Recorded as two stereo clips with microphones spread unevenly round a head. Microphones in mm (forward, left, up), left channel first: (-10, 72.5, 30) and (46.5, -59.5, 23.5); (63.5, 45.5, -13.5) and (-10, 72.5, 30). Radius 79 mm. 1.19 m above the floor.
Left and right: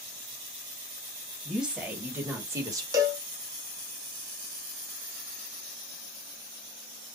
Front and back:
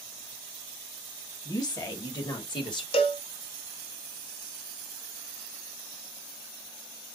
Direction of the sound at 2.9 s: Straight ahead.